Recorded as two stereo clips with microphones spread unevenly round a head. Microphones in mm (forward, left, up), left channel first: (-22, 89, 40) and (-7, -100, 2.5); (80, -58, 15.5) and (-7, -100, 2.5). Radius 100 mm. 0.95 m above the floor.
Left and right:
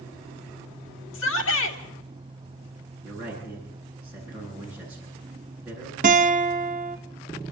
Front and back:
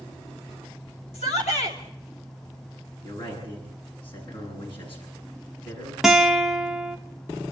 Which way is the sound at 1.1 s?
70° left.